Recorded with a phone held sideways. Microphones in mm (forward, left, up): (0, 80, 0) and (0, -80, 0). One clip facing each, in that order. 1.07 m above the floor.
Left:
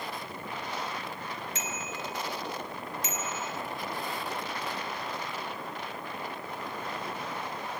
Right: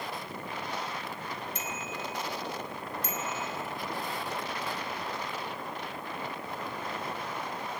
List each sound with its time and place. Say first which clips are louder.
1.6 s a bicycle bell: even; 80° left, 3.5 m